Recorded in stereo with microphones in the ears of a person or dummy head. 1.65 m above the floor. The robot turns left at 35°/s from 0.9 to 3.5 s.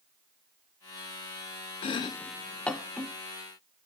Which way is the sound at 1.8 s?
30° left (ahead or behind).